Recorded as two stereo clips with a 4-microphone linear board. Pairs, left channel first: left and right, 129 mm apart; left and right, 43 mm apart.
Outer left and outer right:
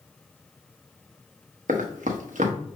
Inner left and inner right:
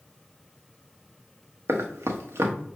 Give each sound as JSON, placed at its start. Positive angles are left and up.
{"t": 1.7, "sound": "running footsteps", "side_deg": -85, "distance_m": 1.1}